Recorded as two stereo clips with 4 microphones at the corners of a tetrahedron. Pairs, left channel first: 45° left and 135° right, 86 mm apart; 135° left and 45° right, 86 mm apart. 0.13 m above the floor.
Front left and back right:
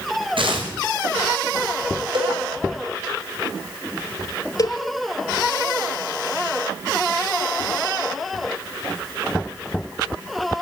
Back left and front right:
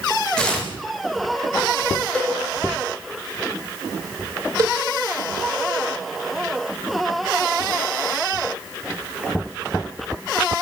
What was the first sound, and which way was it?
Tearing paper, 145° right.